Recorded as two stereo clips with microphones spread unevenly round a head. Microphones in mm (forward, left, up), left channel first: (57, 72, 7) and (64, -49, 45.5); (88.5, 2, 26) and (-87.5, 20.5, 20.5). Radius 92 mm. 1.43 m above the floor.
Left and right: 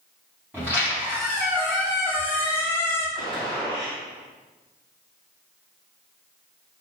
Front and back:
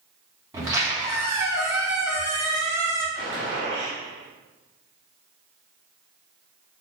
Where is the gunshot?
155° right, 2 m.